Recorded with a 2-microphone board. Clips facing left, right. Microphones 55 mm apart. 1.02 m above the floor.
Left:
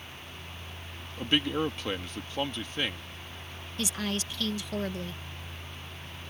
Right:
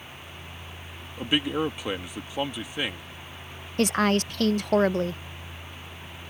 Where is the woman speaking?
55° right (ahead or behind).